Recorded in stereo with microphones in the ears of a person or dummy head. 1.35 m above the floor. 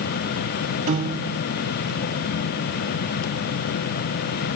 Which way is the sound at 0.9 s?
35° right (ahead or behind).